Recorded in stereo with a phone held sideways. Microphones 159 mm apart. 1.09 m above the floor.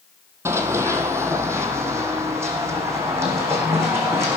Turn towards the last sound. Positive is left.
turn(degrees=-15)  # may be behind; listen again after turning